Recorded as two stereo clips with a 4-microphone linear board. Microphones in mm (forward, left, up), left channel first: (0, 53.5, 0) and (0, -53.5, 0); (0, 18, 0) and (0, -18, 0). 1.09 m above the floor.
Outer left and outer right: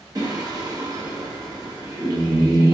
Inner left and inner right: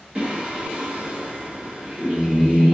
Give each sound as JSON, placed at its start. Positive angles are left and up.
{"t": 0.1, "sound": "singing", "side_deg": -35, "distance_m": 1.4}